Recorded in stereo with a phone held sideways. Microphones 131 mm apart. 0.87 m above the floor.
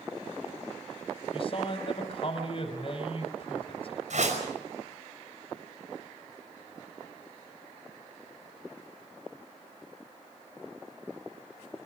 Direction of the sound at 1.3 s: 45° left (ahead or behind).